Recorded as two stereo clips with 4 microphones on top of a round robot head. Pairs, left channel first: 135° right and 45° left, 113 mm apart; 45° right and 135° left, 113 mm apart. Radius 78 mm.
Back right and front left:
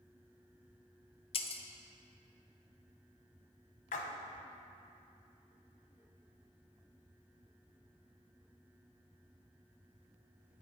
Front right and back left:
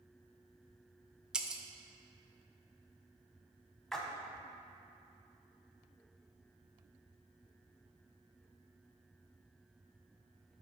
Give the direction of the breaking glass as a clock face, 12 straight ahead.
5 o'clock.